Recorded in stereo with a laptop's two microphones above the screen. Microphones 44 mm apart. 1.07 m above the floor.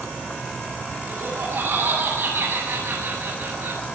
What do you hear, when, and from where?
1.1 s laughter: 70° right (ahead or behind), 6 m